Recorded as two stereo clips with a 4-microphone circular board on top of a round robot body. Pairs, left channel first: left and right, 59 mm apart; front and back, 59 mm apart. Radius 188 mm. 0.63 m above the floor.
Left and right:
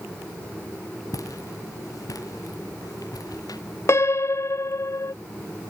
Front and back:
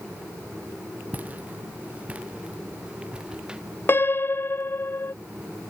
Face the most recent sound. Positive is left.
turn(degrees=50)